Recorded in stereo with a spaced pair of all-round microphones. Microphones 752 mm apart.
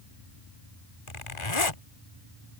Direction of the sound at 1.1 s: 40° left (ahead or behind).